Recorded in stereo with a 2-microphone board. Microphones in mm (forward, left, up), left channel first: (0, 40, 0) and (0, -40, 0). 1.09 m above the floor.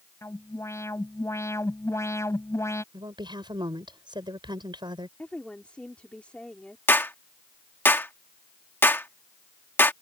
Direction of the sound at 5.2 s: 15° left (ahead or behind).